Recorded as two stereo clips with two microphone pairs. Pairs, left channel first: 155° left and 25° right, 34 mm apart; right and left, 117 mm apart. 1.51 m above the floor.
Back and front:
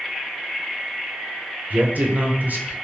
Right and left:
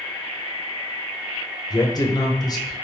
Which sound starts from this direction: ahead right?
A man speaking, at 1.7 s.